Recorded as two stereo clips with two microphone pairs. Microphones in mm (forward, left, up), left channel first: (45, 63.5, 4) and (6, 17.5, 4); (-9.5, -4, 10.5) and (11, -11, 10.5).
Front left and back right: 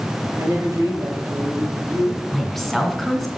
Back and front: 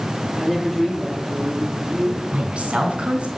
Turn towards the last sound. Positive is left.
turn(degrees=-35)